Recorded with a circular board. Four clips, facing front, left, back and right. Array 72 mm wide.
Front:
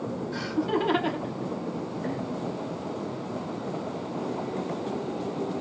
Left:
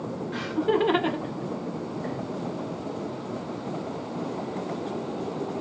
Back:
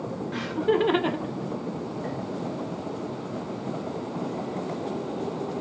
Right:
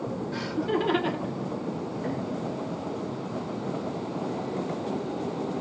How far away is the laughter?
About 1.2 m.